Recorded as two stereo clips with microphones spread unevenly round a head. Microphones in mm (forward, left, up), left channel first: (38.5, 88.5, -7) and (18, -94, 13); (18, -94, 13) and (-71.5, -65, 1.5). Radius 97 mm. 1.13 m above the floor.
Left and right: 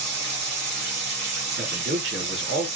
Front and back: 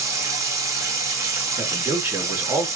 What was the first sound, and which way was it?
Running water, 140° right.